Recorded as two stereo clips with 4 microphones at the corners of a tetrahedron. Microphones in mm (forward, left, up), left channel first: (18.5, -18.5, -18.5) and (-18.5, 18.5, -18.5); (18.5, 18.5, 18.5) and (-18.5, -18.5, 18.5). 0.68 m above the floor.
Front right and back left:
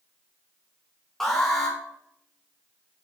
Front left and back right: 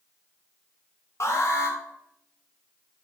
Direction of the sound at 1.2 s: 35° left.